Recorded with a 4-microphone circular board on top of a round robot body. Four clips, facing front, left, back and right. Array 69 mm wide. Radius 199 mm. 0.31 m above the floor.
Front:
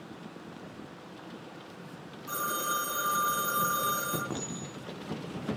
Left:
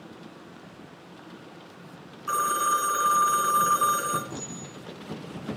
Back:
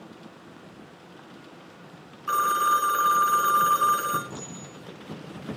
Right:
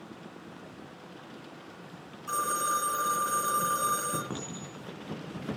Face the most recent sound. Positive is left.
turn(degrees=-45)